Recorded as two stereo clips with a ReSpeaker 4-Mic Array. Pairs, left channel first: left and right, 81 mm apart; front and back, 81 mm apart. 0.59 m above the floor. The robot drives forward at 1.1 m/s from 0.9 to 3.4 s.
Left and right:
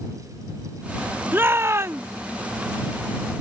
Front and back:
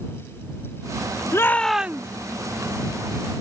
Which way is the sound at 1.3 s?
35° right.